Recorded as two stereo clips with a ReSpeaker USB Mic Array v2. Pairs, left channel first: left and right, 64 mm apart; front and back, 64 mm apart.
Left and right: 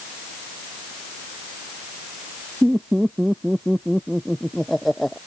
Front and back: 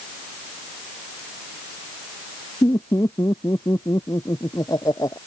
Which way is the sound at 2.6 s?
10° right.